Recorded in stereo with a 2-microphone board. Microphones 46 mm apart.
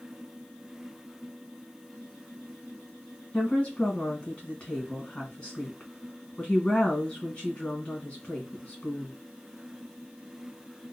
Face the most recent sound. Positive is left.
turn(degrees=25)  # may be behind; listen again after turning